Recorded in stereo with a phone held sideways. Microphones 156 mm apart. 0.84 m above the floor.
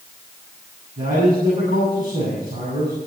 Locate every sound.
1.0 s a man speaking: 65° right (ahead or behind), 8 m